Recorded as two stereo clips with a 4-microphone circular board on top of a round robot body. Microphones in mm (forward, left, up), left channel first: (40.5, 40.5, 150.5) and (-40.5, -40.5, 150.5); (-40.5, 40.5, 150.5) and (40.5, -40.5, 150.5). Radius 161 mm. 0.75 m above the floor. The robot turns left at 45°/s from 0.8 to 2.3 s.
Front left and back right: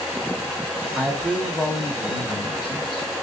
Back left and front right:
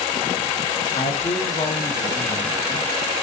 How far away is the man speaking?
About 0.9 m.